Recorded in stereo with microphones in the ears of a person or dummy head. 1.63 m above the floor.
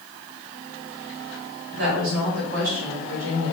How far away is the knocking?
I don't hear knocking.